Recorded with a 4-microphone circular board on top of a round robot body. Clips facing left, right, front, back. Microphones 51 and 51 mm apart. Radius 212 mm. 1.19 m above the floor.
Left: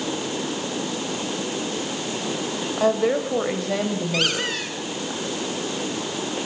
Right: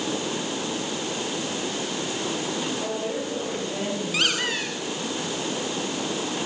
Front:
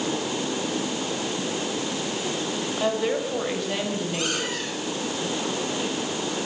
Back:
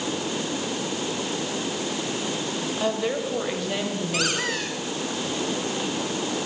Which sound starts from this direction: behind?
A squeak, at 4.1 s.